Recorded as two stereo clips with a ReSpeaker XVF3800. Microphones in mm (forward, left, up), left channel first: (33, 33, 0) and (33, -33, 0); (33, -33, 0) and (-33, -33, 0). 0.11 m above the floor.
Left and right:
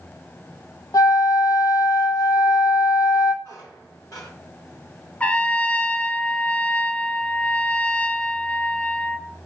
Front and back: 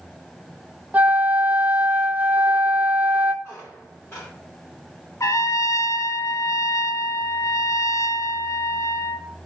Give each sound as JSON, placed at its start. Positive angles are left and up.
{"t": 0.9, "sound": "a flute", "azimuth_deg": 115, "distance_m": 0.6}
{"t": 3.4, "sound": "a squeak", "azimuth_deg": 55, "distance_m": 3.5}
{"t": 5.2, "sound": "a trumpet", "azimuth_deg": 20, "distance_m": 0.6}